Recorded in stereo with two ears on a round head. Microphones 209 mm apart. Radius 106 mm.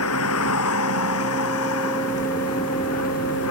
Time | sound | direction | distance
0.0 | a vehicle | 75° left (ahead or behind) | ?